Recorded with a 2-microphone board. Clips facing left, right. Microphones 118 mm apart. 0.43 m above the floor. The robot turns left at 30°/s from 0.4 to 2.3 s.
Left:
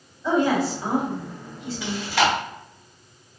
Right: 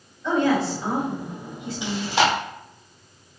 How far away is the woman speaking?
About 1.8 m.